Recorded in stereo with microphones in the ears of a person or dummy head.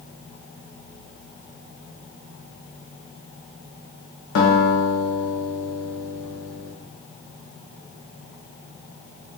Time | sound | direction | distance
4.3 | a guitar | 85° left | 0.9 m